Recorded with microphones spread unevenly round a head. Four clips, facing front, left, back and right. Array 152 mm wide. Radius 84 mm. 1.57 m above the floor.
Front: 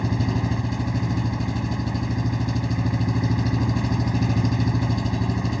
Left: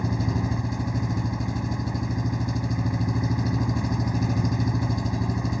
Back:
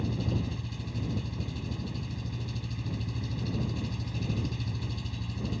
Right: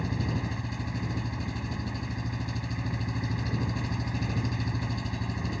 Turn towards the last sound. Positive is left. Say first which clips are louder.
# left 5 dB, front 8 dB
turn(degrees=30)